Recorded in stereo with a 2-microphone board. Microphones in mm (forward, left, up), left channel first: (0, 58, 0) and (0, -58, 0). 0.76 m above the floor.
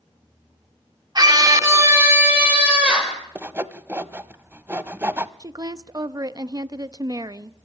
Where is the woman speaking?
35° right (ahead or behind), 0.6 m.